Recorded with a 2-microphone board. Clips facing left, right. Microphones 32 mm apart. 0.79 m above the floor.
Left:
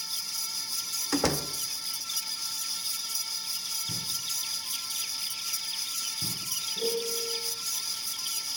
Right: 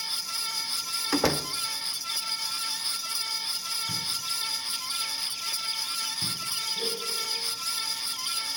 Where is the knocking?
15° right (ahead or behind), 3.5 m.